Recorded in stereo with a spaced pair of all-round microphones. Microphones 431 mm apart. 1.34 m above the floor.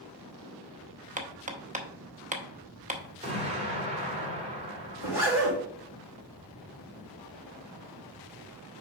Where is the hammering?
20° right (ahead or behind), 0.8 m.